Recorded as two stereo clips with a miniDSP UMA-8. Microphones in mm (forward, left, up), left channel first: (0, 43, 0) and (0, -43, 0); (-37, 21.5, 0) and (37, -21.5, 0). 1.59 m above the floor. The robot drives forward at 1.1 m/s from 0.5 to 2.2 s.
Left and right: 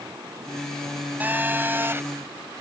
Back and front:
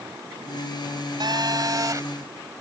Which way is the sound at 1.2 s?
25° right.